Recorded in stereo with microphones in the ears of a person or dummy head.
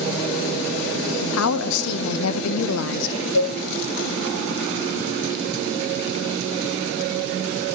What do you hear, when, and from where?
1.2 s a woman speaking: 80° left, 0.7 m
3.3 s a cowbell: 60° left (ahead or behind), 4 m